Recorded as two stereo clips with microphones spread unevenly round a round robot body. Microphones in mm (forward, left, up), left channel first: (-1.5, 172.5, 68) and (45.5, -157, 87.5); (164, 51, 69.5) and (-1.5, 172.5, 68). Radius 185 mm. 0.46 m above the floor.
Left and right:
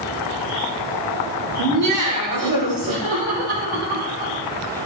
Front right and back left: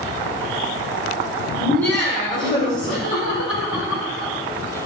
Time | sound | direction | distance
1.6 | laughter | 125° right | 2 m